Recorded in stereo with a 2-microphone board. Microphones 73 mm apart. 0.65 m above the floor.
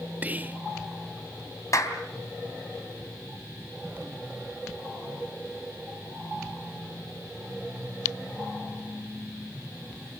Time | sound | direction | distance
0.2 | whispering | 25° right (ahead or behind) | 0.6 m
1.7 | a clap | 45° left (ahead or behind) | 3.5 m